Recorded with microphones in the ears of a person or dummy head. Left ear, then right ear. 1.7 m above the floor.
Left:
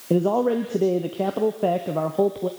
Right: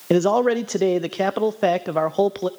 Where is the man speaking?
65° right (ahead or behind), 0.7 m.